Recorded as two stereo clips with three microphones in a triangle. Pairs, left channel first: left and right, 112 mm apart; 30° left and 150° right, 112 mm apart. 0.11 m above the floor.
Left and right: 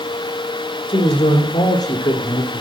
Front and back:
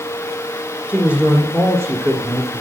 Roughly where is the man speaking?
Behind left.